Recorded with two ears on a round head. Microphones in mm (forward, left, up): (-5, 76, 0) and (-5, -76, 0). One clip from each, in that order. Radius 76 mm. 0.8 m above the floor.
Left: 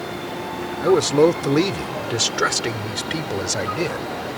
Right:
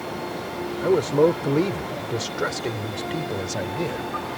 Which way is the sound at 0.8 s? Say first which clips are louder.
Left 3 dB; 75° left (ahead or behind).